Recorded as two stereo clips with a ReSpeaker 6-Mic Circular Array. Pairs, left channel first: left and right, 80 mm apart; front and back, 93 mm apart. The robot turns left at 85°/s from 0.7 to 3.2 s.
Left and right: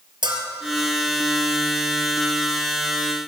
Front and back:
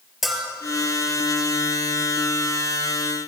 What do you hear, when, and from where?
0.2 s a bell: 95° right, 3.5 m